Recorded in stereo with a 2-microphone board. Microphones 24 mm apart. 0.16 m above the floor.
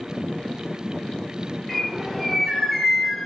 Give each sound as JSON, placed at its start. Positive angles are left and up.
{"t": 1.7, "sound": "a bird", "side_deg": 0, "distance_m": 3.0}